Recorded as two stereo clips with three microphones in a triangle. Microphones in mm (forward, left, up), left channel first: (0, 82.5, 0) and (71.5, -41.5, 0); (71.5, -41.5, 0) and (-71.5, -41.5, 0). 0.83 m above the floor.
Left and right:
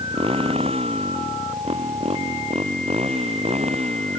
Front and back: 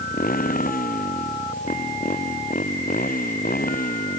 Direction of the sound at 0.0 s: 10° right.